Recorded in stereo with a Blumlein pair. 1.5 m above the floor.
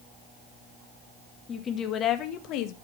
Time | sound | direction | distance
1.5 | a woman speaking | 20° left | 2 m